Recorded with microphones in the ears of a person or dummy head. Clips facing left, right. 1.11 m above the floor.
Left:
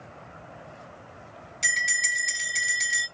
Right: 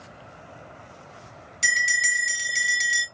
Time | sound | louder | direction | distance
1.6 | a bell | right 5 dB | 10° right (ahead or behind) | 1.9 m